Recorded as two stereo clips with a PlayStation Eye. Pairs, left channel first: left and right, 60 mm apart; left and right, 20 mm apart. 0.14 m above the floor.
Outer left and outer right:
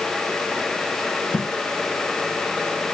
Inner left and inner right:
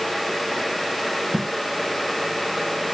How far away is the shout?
I don't hear a shout.